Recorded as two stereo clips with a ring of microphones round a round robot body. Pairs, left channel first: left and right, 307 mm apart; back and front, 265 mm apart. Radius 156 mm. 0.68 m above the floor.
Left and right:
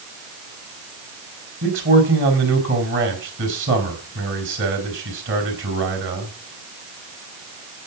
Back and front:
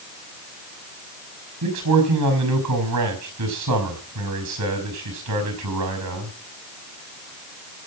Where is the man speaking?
35° right, 4.5 m.